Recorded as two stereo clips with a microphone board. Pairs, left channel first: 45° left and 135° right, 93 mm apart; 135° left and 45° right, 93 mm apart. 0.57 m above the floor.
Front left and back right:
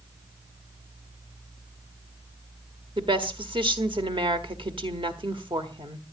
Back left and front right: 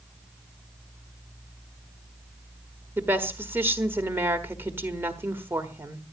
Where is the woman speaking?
110° right, 1.5 m.